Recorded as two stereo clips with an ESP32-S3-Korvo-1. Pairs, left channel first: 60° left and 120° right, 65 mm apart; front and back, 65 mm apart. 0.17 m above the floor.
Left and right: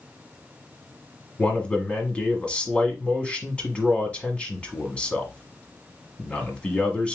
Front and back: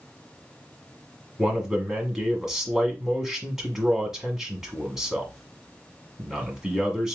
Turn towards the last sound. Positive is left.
turn(degrees=110)